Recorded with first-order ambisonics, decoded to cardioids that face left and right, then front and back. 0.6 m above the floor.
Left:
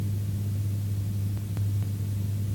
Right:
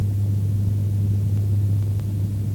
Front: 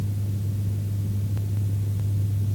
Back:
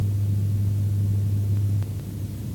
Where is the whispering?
No whispering in this recording.